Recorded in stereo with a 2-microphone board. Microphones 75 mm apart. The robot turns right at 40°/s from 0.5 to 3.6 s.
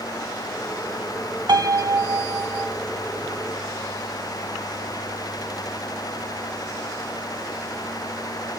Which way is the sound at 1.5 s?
80° right.